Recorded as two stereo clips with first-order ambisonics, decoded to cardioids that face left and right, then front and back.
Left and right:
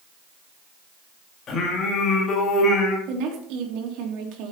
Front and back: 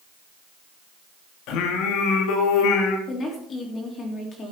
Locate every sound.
1.5 s singing: 30° left, 2.5 m
3.1 s a woman speaking: 65° right, 3 m